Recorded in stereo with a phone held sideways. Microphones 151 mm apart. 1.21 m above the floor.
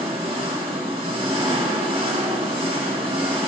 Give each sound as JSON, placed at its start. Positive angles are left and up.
{"t": 0.0, "sound": "an engine running", "side_deg": -40, "distance_m": 2.5}